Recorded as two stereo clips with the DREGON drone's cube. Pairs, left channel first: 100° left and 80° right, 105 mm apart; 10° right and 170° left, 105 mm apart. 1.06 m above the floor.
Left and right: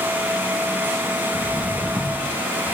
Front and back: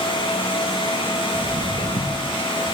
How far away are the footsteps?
About 1.3 m.